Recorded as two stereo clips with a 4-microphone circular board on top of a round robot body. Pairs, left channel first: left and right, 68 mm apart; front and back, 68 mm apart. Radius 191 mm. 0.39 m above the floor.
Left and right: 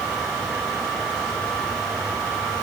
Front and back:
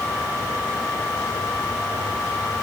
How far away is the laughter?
I don't hear laughter.